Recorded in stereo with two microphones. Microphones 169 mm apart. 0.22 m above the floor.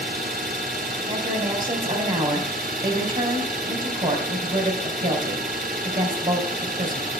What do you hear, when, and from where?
0.0 s an engine running: 60° right (ahead or behind), 2.0 m
1.1 s a woman speaking: 60° right (ahead or behind), 3.5 m